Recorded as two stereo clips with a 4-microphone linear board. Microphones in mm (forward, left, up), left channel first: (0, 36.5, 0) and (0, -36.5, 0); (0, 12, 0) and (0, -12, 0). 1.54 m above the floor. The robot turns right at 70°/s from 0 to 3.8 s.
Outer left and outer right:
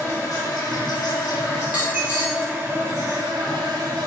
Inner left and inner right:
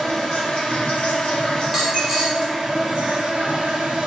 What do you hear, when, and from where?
0.0 s an insect: 30° left, 0.7 m; by 4.1 s 65° right, 0.7 m
1.6 s a dropped coin: 15° right (ahead or behind), 0.9 m; by 2.5 s 30° right (ahead or behind), 0.9 m